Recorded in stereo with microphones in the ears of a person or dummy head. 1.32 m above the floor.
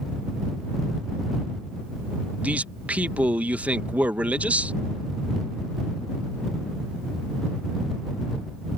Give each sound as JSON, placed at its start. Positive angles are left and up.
{"t": 2.4, "sound": "a man speaking", "side_deg": -10}